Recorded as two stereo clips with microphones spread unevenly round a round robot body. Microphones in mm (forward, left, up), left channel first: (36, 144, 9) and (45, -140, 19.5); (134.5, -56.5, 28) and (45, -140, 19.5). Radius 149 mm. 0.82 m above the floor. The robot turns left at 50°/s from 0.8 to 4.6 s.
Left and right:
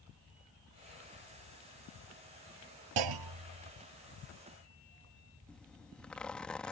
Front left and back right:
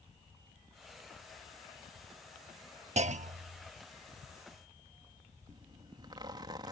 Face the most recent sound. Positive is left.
turn(degrees=175)